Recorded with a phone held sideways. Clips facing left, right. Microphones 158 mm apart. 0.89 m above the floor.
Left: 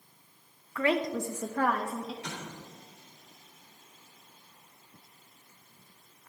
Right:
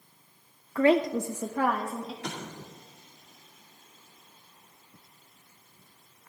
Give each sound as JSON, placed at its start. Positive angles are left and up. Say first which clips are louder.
{"t": 0.8, "sound": "a woman speaking", "louder": "right 6 dB", "side_deg": -35, "distance_m": 0.5}
{"t": 2.2, "sound": "an explosion", "louder": "right 3 dB", "side_deg": -75, "distance_m": 2.0}